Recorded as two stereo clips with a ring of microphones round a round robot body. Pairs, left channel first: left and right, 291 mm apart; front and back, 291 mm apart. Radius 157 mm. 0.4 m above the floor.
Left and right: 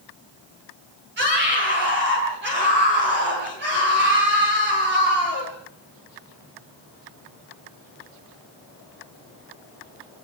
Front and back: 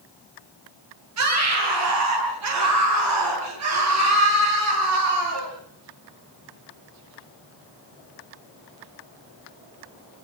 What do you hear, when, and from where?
1.2 s a scream: 150° right, 10 m